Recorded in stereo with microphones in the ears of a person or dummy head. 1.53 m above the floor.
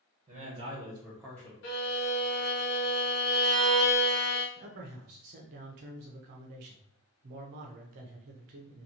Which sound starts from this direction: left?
A violin, at 1.6 s.